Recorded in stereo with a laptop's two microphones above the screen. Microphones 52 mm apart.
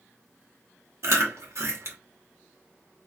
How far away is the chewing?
About 1.2 m.